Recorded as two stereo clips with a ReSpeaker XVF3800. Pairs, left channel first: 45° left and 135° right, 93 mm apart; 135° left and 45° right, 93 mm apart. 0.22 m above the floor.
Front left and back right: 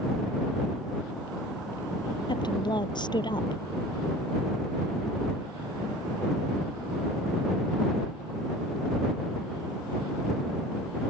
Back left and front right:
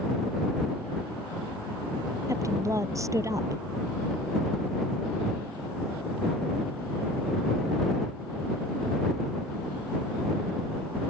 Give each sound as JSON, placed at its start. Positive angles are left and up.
{"t": 2.3, "sound": "a woman speaking", "azimuth_deg": 10}